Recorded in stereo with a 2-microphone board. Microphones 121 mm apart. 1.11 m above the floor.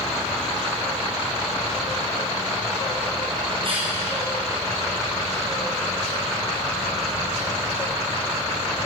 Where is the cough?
50° right (ahead or behind), 6 m.